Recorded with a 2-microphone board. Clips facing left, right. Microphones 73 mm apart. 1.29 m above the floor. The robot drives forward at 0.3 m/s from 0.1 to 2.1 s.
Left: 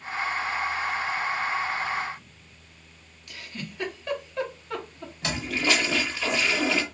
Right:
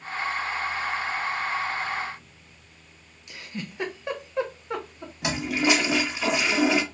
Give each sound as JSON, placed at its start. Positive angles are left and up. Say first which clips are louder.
{"t": 3.3, "sound": "a giggle", "louder": "right 2 dB", "side_deg": -20, "distance_m": 0.9}
{"t": 5.2, "sound": "a toilet flushing", "louder": "right 3 dB", "side_deg": -15, "distance_m": 0.6}